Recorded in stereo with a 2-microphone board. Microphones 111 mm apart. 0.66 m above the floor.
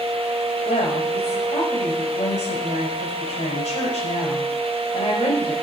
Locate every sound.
0.7 s a woman speaking: 80° left, 3 m